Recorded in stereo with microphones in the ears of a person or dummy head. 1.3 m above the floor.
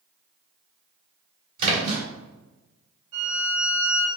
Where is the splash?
50° right (ahead or behind), 2.5 m.